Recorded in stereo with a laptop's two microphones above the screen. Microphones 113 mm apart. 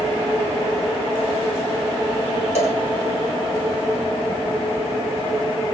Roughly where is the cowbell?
Left.